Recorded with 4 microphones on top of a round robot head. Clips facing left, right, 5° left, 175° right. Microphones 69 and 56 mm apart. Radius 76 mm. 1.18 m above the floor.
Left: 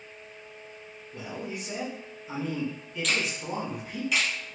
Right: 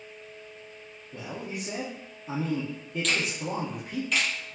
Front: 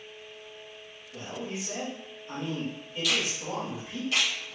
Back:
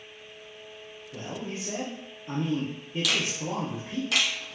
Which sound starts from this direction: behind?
A finger snap, at 3.0 s.